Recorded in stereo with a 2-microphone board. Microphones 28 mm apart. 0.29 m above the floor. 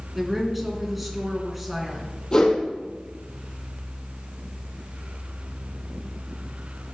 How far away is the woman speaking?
About 3.5 m.